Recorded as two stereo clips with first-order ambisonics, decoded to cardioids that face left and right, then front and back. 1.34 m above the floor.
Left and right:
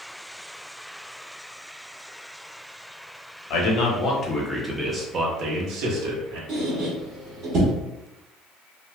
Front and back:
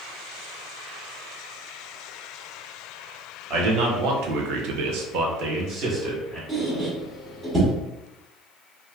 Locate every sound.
3.5 s a man speaking: 135° left, 0.9 m; by 6.4 s 115° right, 1.0 m
6.5 s a squeak: 110° right, 1.0 m